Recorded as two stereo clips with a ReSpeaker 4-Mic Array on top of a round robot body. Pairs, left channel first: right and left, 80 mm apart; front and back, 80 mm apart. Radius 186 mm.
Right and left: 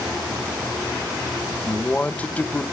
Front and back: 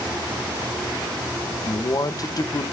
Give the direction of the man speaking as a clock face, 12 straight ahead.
1 o'clock.